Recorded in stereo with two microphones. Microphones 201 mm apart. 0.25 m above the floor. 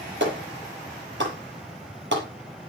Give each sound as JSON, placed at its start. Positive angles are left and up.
{"t": 0.2, "sound": "a clap", "side_deg": -65, "distance_m": 5.5}